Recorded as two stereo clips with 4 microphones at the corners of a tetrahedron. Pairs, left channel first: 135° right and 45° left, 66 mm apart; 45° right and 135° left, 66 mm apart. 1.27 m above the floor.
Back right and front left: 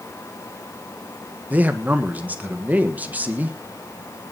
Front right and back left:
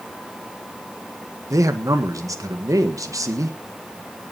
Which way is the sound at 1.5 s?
110° left.